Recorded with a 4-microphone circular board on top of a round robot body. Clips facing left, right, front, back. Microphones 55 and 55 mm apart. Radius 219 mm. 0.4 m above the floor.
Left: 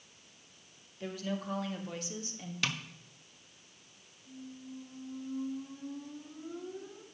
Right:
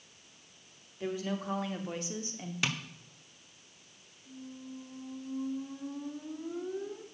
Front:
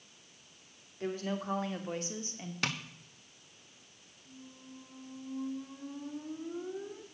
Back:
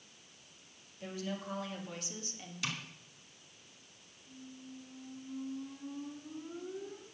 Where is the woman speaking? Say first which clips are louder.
Right 3 dB, front 5 dB; 25° right, 2.5 m; by 2.5 s 50° right, 1.8 m.